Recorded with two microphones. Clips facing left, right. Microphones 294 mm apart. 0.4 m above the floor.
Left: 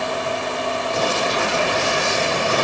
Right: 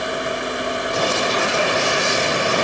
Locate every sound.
Only background noise.